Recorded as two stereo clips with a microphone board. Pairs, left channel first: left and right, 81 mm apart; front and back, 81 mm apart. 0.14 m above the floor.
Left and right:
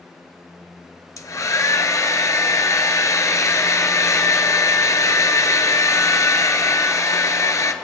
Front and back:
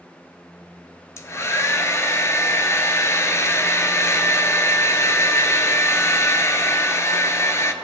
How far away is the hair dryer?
About 0.7 m.